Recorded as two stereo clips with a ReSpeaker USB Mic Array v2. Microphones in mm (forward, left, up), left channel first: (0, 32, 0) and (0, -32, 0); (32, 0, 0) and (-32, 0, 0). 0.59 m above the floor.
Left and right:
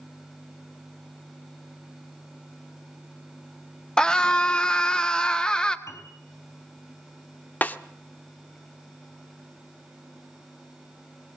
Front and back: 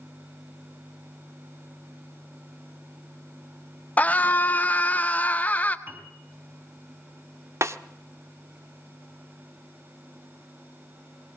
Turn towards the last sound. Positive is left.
turn(degrees=150)